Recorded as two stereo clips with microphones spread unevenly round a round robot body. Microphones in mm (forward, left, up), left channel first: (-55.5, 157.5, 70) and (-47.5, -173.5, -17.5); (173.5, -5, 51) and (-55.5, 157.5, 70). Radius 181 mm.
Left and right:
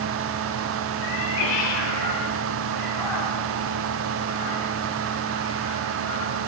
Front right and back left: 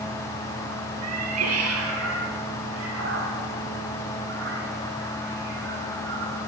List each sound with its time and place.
1.0 s a cat meowing: 115° left, 3 m; by 6.4 s 95° left, 8.5 m